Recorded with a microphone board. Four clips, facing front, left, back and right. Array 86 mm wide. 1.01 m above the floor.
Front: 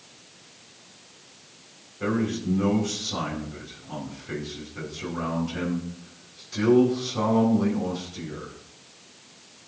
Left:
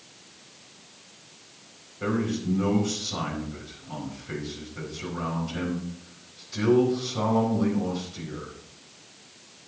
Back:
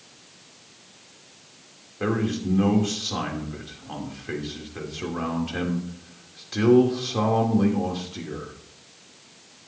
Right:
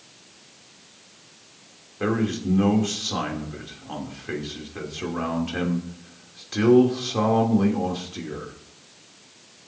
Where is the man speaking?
125° right, 3 m.